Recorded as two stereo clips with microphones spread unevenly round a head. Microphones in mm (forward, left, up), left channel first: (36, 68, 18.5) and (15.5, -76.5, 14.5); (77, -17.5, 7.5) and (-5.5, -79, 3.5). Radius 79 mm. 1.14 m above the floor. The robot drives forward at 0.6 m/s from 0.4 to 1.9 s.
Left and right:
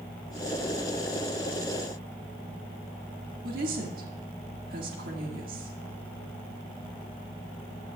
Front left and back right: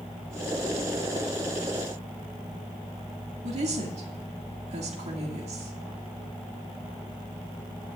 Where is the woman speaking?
135° right, 2 m.